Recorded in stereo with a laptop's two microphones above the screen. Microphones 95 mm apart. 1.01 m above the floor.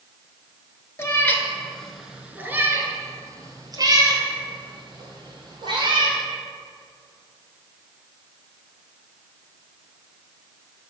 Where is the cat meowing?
30° left (ahead or behind), 1.1 m; by 6.2 s 55° right (ahead or behind), 3 m.